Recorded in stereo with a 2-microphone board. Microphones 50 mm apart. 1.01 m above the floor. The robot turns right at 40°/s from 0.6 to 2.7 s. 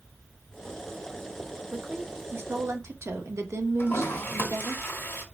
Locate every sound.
1.7 s a woman speaking: 150° right, 1.1 m; by 4.8 s 110° right, 1.1 m
3.8 s a toilet flushing: 45° left (ahead or behind), 1.6 m